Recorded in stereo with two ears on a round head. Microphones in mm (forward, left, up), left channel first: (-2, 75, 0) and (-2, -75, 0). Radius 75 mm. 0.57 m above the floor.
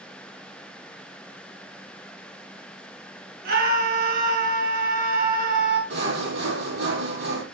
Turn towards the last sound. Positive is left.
turn(degrees=-70)  # may be behind; listen again after turning